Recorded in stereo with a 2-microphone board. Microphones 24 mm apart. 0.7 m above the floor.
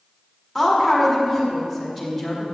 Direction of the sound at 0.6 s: 5° right (ahead or behind).